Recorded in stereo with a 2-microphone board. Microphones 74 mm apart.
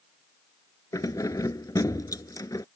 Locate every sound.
0.9 s keys jangling: 55° left (ahead or behind)